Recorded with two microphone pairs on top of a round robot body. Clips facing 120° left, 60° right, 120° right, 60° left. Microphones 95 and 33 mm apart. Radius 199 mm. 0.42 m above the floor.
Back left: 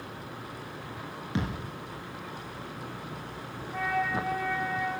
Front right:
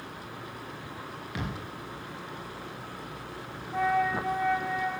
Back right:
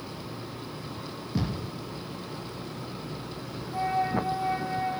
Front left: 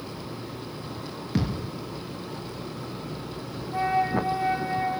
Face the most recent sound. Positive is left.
turn(degrees=5)